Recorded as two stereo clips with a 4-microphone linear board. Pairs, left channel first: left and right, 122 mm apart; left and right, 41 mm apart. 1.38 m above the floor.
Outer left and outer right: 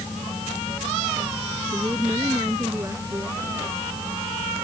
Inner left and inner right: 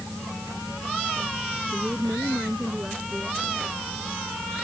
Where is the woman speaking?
25° right (ahead or behind).